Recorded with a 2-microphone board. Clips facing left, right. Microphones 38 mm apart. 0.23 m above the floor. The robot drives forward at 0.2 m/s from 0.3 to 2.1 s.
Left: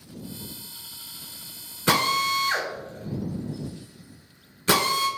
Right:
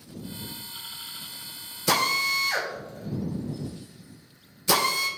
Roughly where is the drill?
Left.